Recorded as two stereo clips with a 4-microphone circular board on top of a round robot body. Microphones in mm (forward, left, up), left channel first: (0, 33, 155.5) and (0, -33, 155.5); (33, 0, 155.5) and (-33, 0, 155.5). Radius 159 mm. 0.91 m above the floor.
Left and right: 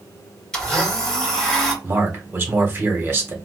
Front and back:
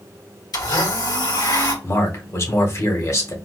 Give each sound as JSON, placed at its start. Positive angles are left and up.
{"t": 0.5, "sound": "a blender", "azimuth_deg": 10, "distance_m": 2.5}
{"t": 1.8, "sound": "a man speaking", "azimuth_deg": -35, "distance_m": 1.6}